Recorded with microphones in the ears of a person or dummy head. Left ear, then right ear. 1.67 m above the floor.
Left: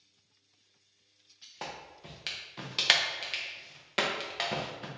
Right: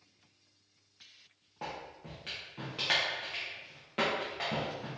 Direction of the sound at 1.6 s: 45° left (ahead or behind).